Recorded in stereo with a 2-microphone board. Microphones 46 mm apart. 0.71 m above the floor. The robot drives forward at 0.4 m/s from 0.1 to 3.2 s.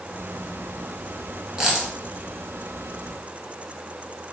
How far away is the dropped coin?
About 0.8 m.